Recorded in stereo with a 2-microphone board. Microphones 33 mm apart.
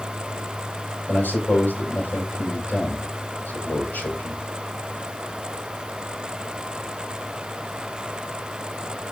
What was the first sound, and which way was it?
A man speaking, 70° left (ahead or behind).